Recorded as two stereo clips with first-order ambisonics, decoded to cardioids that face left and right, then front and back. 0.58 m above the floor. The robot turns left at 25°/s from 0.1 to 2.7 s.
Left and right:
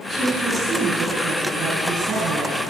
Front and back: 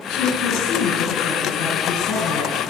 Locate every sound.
0.1 s a woman speaking: 5° right, 4 m; by 2.6 s 65° right, 4 m